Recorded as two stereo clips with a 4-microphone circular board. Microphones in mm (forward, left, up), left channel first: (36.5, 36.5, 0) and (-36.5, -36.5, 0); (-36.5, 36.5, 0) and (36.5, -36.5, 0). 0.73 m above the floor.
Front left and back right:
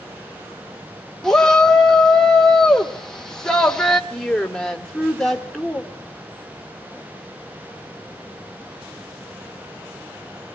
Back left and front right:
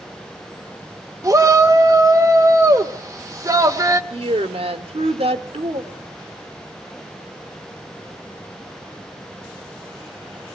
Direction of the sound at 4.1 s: 40° right.